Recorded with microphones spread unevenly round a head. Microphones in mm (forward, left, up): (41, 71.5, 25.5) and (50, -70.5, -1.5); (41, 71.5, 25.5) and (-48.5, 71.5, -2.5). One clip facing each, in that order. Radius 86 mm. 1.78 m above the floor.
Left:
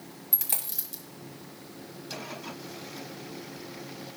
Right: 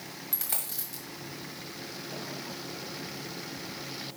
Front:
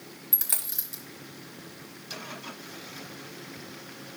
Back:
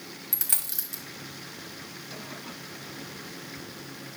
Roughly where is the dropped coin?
Ahead left.